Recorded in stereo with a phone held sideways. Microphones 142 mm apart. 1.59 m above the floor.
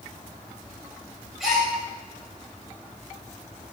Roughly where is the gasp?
Centre.